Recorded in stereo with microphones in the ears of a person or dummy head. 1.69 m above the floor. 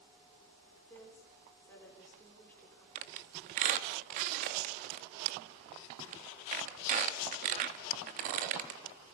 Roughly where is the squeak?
Right.